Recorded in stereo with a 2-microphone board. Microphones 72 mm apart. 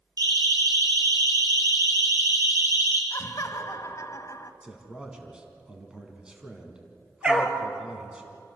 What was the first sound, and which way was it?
A siren, 65° right (ahead or behind).